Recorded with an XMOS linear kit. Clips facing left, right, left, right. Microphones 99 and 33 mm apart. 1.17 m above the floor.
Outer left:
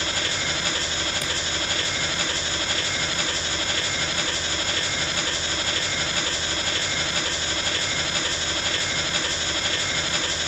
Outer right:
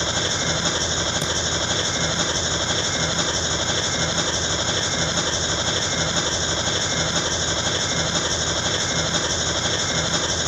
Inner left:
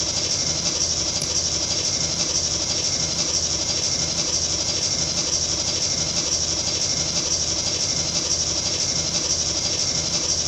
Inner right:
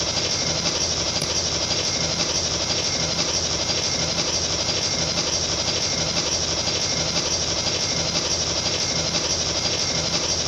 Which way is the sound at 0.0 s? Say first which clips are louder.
Outer right 4 dB, inner right 2 dB; 25° right (ahead or behind).